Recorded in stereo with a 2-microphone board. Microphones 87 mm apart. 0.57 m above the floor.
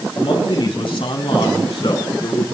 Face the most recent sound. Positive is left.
turn(degrees=70)  # may be behind; listen again after turning